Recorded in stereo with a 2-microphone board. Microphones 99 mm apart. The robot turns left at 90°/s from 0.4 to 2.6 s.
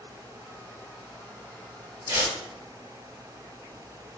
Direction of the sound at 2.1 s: 35° right (ahead or behind).